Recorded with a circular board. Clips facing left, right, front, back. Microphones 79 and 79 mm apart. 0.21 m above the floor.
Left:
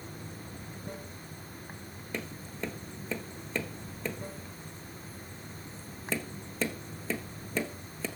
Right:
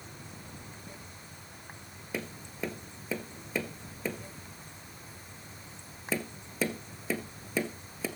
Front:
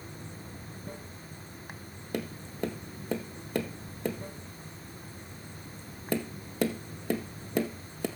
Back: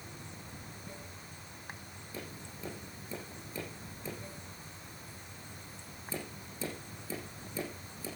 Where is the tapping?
5° right, 1.6 m.